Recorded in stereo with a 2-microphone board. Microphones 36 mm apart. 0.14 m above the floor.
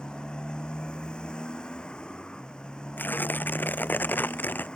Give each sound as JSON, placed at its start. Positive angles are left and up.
{"t": 0.0, "sound": "a motorcycle", "side_deg": 25}
{"t": 3.0, "sound": "tearing paper", "side_deg": 60}